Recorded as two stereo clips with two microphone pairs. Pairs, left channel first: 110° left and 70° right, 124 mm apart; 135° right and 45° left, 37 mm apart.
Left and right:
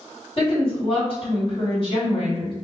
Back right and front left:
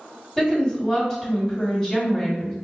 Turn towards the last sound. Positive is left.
turn(degrees=140)